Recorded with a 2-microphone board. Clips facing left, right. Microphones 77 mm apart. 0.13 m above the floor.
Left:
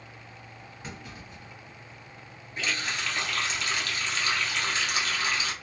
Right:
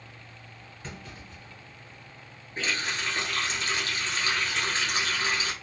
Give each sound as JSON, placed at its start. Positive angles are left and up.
{"t": 0.8, "sound": "a clunk", "side_deg": 10, "distance_m": 1.6}
{"t": 2.6, "sound": "a running tap", "side_deg": -35, "distance_m": 1.2}